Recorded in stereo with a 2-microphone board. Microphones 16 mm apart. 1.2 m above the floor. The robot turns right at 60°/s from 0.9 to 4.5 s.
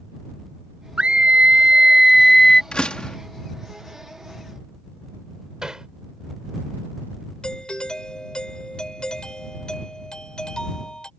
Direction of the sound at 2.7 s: 75° left (ahead or behind).